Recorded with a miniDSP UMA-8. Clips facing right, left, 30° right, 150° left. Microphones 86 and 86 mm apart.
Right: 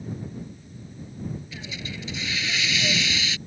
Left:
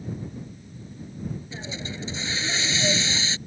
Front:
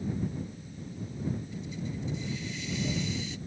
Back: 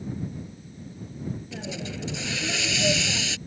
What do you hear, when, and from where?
1.5 s a hiss: 150° left